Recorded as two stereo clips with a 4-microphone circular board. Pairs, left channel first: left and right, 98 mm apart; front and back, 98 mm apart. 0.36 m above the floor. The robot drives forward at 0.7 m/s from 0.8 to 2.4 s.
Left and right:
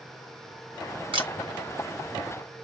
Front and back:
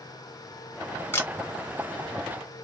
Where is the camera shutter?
65° right, 2 m; by 1.3 s 70° right, 2 m.